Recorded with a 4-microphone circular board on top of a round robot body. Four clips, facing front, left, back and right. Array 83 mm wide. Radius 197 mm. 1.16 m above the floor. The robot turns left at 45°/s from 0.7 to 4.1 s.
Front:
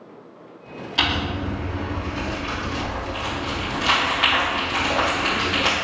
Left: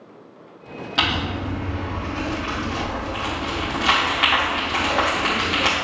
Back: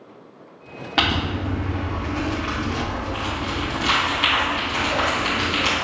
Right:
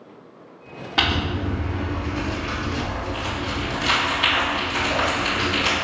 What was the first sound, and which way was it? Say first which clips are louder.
Crumpling: right 1 dB, back 2 dB; 165° right.